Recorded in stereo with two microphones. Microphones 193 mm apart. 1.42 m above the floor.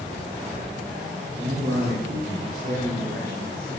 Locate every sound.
1.4 s a man speaking: 55° right (ahead or behind), 3.5 m; by 3.7 s 60° right (ahead or behind), 5.5 m